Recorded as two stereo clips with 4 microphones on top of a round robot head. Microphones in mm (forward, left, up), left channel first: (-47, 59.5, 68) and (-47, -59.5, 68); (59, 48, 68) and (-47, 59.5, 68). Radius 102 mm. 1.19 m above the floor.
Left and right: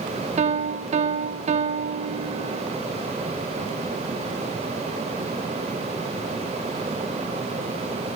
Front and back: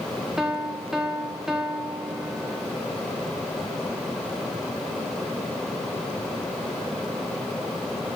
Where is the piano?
105° right, 0.9 m.